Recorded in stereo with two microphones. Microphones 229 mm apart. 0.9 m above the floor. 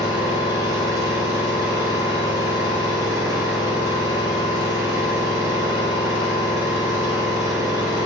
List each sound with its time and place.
0.0 s an engine running: 15° right (ahead or behind), 3 m